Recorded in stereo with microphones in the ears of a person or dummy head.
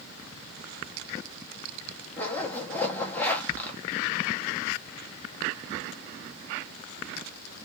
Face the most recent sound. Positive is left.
turn(degrees=10)  # may be behind; listen again after turning